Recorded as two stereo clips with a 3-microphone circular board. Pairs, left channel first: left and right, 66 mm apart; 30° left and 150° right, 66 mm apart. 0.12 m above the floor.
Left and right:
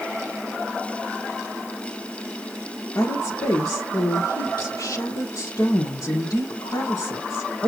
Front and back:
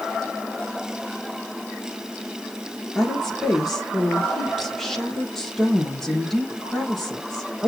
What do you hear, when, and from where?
3.0 s a woman speaking: 115° left, 4 m